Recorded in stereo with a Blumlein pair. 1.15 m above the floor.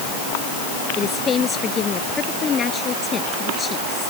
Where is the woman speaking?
25° left.